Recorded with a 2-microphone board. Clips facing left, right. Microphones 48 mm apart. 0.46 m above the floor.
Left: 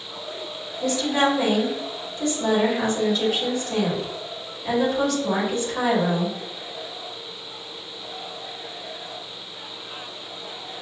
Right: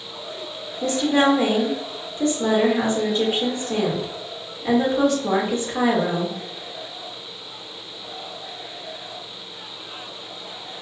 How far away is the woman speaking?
About 1.3 m.